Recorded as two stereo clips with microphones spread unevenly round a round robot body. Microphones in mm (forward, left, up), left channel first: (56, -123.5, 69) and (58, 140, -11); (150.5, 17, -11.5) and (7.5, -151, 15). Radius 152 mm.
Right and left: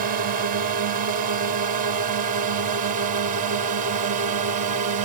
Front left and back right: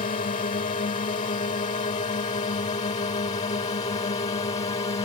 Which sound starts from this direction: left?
A drone, at 0.0 s.